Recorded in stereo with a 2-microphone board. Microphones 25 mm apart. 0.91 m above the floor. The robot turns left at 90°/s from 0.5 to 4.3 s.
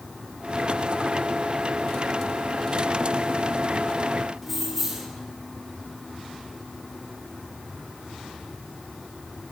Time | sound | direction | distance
4.4 | keys jangling | 5° right (ahead or behind) | 1.7 m